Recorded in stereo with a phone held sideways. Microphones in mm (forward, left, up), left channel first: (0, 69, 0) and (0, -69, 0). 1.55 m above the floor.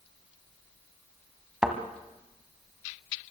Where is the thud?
5° right (ahead or behind), 1.9 m.